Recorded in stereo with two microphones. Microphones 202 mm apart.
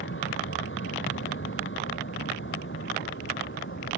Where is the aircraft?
75° left (ahead or behind).